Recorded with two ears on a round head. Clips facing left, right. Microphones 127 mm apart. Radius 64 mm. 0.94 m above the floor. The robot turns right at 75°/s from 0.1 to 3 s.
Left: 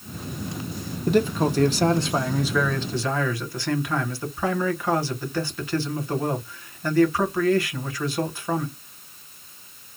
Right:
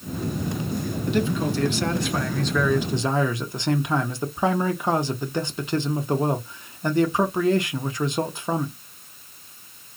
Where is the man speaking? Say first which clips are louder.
Left 4 dB; 65° left, 0.9 m; by 8.8 s 150° right, 0.9 m.